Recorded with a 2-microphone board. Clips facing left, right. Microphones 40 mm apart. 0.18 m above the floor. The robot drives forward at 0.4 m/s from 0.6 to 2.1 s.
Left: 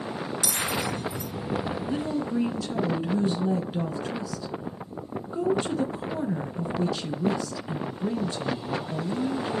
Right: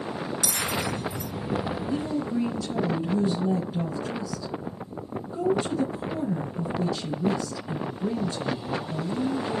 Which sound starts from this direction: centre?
A bell, at 0.4 s.